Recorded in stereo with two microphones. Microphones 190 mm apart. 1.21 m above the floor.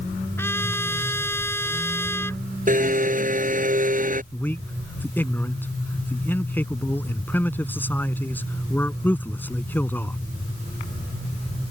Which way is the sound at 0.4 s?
10° left (ahead or behind).